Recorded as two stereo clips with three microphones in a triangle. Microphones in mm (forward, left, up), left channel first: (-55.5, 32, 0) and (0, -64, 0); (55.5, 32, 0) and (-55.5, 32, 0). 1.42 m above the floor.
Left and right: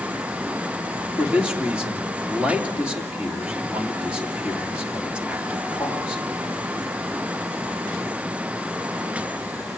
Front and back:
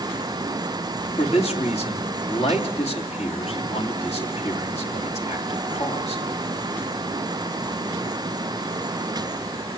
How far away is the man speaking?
About 3 m.